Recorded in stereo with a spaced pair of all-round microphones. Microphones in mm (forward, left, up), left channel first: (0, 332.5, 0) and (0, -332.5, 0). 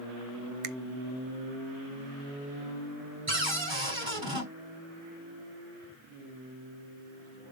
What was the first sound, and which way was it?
A finger snap, 60° right (ahead or behind).